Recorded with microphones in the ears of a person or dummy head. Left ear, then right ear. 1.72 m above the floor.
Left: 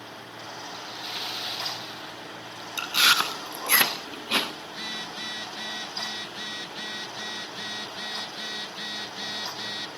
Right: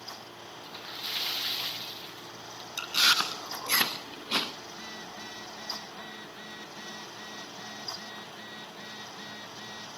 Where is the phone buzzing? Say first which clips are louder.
Left 7 dB; 40° left (ahead or behind), 1.0 m.